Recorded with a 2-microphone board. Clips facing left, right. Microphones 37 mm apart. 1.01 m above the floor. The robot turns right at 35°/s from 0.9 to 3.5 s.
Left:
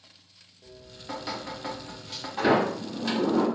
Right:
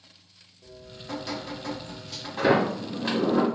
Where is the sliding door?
175° right, 1.1 m; by 3.4 s 135° right, 1.1 m.